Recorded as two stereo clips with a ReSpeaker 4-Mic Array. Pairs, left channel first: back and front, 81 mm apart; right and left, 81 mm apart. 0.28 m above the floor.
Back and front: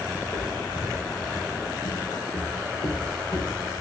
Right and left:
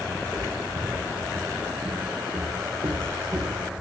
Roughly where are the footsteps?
Behind.